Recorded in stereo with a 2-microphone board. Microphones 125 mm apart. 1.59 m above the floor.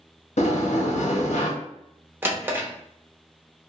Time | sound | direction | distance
0.4 | a sliding door | 70° left (ahead or behind) | 0.7 m
2.2 | a drawer | 20° right (ahead or behind) | 0.6 m